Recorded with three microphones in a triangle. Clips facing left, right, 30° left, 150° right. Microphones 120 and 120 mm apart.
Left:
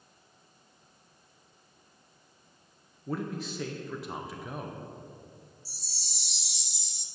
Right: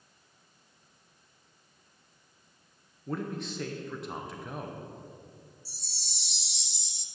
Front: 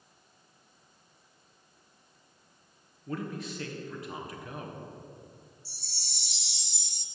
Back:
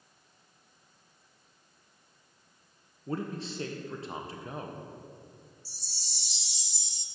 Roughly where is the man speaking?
Behind.